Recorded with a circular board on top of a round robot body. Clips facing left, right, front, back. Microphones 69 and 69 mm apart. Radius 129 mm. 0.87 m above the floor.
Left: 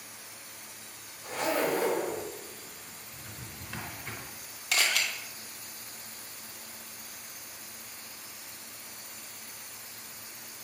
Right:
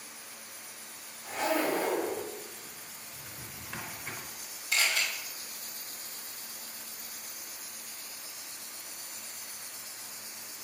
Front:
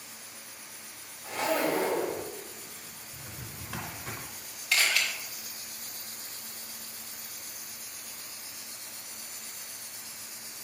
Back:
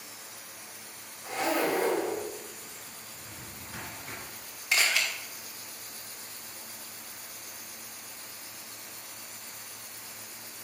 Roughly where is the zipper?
Behind left.